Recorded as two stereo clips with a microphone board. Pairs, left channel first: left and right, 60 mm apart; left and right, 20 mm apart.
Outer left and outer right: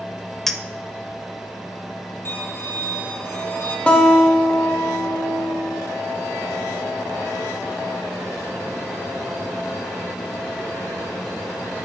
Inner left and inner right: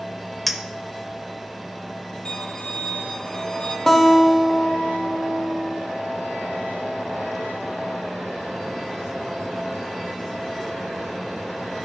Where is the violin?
45° left (ahead or behind), 1.7 m.